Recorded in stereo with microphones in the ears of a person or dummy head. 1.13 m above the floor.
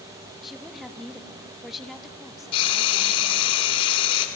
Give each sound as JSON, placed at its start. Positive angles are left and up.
{"t": 0.4, "sound": "a woman speaking", "side_deg": 0, "distance_m": 1.3}
{"t": 2.5, "sound": "frying", "side_deg": 35, "distance_m": 2.5}